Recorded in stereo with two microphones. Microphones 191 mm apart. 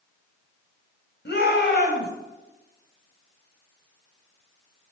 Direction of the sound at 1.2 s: 65° left (ahead or behind).